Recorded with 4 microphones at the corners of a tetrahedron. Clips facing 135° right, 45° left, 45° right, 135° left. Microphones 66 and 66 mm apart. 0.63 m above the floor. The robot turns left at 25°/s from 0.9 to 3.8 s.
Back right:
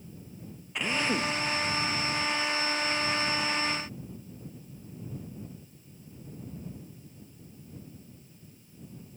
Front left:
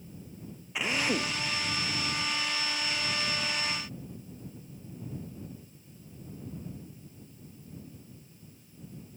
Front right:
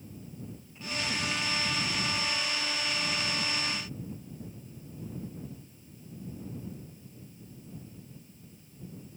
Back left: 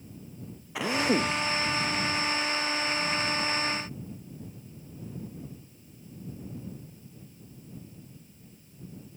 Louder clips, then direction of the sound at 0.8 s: Back right 1 dB, back left 9 dB; 130° left.